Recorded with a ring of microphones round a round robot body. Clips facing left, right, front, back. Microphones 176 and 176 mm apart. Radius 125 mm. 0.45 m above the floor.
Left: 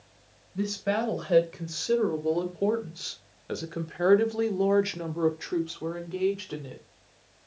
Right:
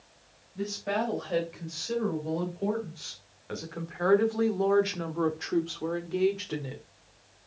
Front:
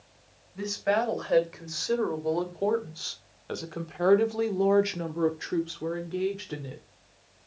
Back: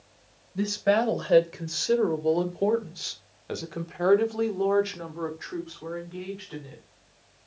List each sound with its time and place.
0.6 s a woman speaking: 130° left, 2.5 m; by 6.8 s 10° right, 1.6 m